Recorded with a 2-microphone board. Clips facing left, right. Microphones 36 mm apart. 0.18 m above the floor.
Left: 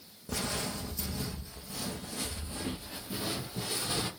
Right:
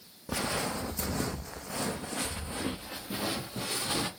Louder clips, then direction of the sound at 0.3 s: Right 3 dB; 25° right (ahead or behind).